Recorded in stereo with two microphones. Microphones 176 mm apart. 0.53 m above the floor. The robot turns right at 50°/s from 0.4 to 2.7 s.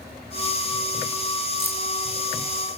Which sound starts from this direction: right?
Keys jangling, at 1.6 s.